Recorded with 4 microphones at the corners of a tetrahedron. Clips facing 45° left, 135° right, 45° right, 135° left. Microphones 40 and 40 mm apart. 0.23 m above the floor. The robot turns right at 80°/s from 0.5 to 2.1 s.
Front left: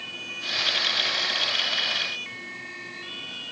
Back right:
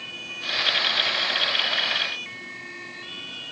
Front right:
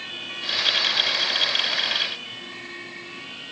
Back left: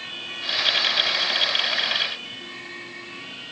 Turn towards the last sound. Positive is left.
No sound to turn to.